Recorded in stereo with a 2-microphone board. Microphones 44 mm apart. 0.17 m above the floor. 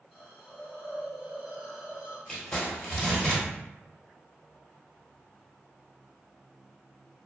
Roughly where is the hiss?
Centre.